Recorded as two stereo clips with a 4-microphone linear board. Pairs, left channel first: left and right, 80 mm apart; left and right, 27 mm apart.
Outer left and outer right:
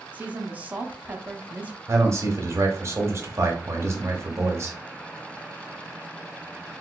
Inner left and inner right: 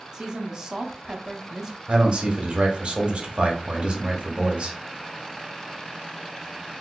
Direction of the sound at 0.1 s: 20° right (ahead or behind).